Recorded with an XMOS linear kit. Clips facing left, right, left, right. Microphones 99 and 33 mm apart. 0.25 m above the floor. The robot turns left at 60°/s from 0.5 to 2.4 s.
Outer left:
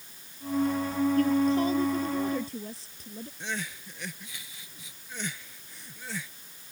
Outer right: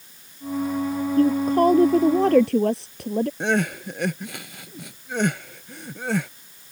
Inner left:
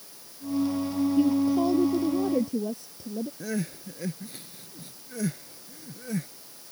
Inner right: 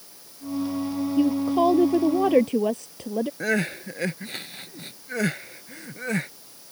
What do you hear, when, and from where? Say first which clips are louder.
1.2 s a woman speaking: outer right 7 dB, inner right 3 dB; 30° right; by 3.3 s 105° right
3.4 s crying: outer right 14 dB, inner right 7 dB; 65° right (ahead or behind)